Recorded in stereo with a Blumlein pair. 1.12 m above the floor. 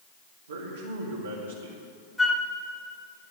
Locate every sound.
0.5 s a man speaking: 70° right, 2 m
2.2 s a flute: 5° left, 1.3 m